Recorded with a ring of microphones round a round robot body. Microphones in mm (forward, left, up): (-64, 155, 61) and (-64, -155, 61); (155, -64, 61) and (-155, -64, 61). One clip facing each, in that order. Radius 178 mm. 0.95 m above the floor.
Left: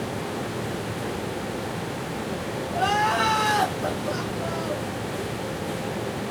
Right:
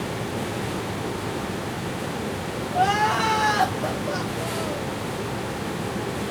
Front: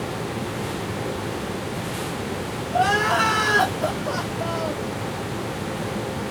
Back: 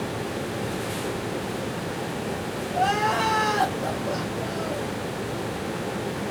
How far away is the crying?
About 1.5 m.